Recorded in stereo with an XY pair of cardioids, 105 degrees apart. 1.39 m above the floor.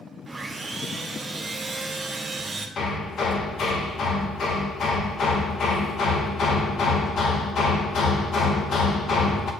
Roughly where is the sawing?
Ahead.